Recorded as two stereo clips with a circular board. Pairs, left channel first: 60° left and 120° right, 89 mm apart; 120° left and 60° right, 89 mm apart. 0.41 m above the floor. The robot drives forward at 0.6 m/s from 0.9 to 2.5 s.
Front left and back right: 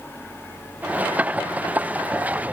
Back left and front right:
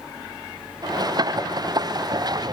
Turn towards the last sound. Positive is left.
No sound to turn to.